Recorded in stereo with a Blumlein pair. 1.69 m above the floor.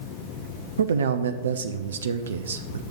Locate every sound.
0.8 s a man speaking: 65° right, 0.7 m